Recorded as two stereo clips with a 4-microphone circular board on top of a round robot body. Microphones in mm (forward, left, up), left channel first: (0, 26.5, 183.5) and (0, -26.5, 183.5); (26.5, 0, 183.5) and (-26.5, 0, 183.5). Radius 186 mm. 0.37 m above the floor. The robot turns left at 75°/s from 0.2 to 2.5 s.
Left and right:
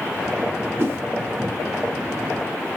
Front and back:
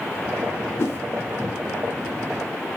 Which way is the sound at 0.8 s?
40° right.